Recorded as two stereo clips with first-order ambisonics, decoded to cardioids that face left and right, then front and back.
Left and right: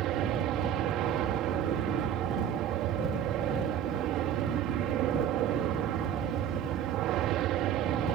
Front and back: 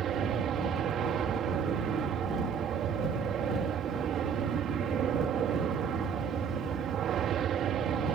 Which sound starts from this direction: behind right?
An aircraft, at 0.0 s.